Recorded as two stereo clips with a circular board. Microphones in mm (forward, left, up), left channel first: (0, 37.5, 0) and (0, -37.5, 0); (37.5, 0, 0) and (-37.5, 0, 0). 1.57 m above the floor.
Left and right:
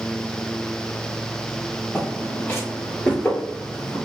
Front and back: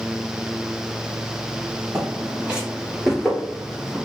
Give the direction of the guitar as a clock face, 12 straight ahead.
I don't hear a guitar.